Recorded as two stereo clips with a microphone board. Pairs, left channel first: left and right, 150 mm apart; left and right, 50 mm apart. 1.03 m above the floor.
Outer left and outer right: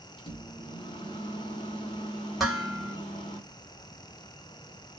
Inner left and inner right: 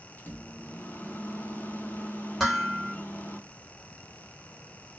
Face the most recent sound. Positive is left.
turn(degrees=0)  # may be behind; listen again after turning